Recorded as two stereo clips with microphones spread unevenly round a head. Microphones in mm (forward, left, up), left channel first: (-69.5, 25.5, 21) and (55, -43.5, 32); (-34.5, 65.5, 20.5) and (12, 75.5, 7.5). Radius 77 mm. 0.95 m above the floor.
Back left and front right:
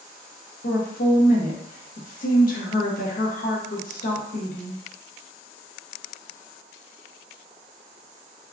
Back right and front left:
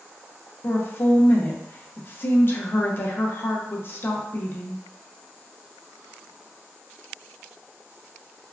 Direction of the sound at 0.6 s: 150° left.